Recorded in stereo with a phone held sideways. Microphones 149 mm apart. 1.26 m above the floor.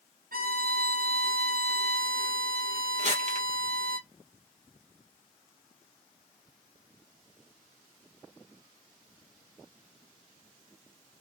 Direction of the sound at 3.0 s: 50° right (ahead or behind).